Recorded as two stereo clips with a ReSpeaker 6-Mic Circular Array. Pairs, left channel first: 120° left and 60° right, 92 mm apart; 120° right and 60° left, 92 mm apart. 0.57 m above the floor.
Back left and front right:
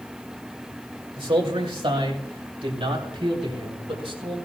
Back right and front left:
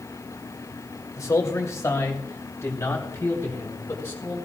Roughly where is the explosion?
No explosion in this recording.